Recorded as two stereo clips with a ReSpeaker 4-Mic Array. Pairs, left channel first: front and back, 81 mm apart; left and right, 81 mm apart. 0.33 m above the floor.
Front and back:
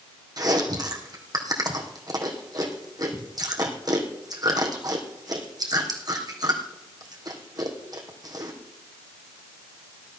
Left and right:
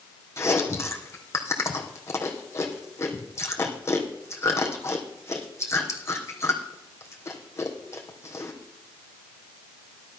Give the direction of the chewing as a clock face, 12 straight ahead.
7 o'clock.